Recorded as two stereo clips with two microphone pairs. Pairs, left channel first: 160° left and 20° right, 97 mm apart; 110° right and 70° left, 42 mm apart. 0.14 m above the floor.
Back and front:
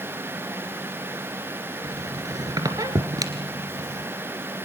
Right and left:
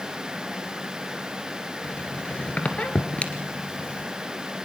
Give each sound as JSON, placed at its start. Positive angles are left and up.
{"t": 1.8, "sound": "a squeak", "azimuth_deg": -60, "distance_m": 1.9}